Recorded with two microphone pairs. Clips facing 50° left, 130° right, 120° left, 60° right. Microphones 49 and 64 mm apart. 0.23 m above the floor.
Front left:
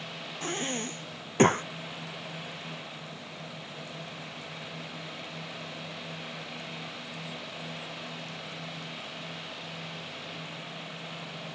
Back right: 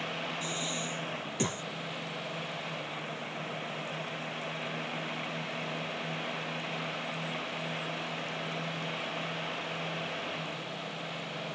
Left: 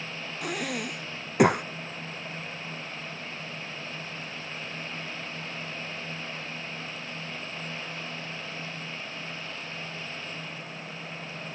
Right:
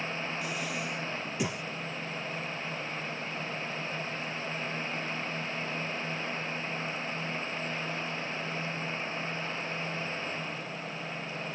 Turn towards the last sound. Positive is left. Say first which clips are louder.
# front left 2 dB, left 3 dB
turn(degrees=90)